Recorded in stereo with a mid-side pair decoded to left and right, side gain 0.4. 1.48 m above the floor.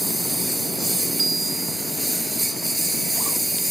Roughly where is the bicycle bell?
Ahead right.